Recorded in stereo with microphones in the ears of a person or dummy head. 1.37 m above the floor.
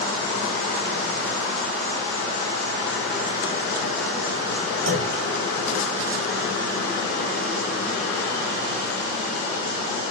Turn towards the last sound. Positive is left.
turn(degrees=-70)  # may be behind; listen again after turning